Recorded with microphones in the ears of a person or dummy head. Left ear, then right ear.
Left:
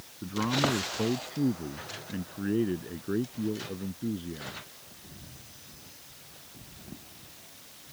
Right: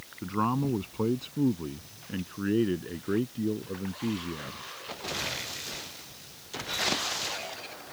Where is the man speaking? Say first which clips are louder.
Left 1 dB; 25° right (ahead or behind); by 4.6 s 20° right (ahead or behind).